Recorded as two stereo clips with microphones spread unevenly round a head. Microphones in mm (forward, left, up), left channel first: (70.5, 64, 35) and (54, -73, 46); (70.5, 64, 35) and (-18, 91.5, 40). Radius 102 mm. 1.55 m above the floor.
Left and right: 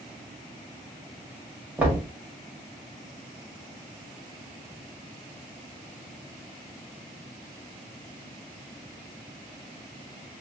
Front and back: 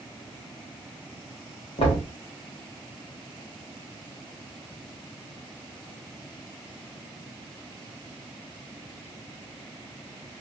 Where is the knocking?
25° right, 1.1 m.